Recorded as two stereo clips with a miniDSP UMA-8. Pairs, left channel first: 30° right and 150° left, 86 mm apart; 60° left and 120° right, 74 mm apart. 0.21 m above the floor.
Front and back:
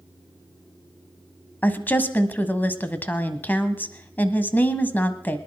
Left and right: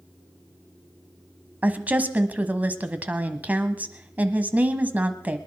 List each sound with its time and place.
1.6 s a woman speaking: 75° right, 1.1 m